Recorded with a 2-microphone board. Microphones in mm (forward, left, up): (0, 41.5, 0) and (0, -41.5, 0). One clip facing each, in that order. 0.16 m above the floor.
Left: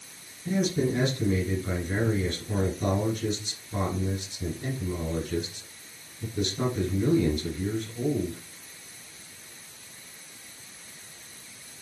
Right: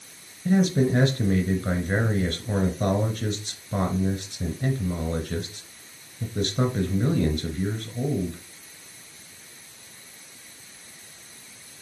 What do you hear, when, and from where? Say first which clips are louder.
0.5 s a man speaking: right 5 dB; 55° right (ahead or behind), 1.9 m